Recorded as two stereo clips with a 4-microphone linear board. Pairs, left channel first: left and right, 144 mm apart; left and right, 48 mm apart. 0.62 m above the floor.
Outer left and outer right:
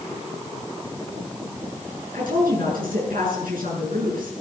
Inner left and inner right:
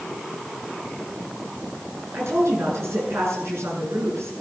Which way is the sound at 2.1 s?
75° right (ahead or behind).